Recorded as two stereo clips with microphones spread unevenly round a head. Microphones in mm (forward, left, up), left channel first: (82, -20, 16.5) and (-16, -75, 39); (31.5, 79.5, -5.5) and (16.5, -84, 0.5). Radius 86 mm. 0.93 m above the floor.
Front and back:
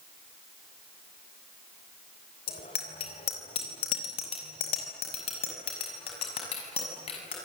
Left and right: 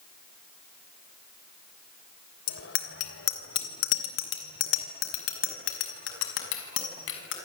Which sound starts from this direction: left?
A bicycle bell, at 2.5 s.